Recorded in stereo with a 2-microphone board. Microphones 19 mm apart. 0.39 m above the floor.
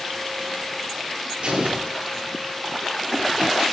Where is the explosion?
50° right (ahead or behind), 8 m.